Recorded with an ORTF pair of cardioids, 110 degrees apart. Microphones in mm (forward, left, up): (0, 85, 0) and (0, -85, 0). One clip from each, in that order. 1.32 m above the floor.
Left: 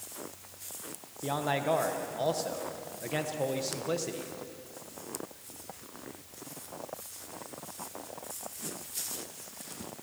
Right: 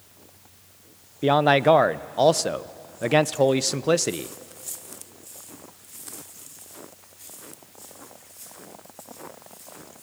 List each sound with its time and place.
1.2 s a man speaking: 60° right, 0.6 m